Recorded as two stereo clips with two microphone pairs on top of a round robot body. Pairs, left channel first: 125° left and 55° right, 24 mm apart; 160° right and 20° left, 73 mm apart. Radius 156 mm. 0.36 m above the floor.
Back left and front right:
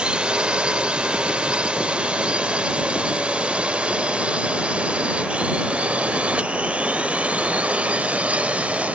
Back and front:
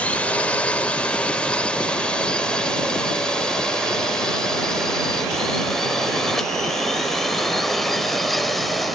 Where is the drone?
95° right; by 8.9 s 75° right.